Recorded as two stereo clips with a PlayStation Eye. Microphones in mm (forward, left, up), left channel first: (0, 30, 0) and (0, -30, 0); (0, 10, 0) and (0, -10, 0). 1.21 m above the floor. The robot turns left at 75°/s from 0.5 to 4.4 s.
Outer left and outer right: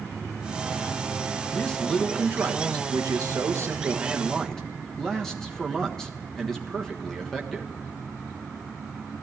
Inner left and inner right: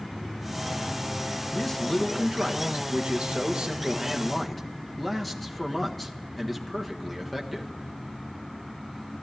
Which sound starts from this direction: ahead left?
A man speaking, at 1.5 s.